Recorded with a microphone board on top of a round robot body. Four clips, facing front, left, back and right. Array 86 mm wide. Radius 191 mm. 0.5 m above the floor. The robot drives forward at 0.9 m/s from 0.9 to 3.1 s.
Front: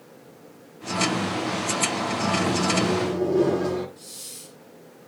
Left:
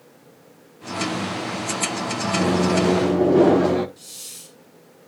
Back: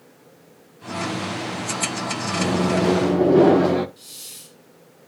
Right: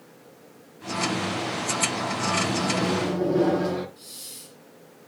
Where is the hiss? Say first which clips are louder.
Even, front 3 dB; 135° left, 2.5 m.